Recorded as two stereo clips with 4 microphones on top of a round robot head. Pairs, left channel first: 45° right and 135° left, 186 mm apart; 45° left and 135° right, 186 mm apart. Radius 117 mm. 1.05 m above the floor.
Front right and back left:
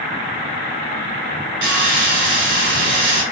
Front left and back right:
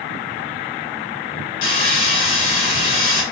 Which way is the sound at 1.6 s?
90° left.